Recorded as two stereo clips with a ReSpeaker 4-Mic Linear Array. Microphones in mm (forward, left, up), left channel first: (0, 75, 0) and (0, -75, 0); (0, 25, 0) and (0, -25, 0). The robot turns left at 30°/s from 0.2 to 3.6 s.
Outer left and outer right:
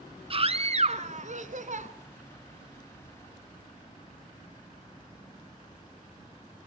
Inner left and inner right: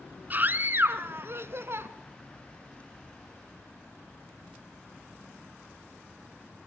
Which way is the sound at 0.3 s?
50° right.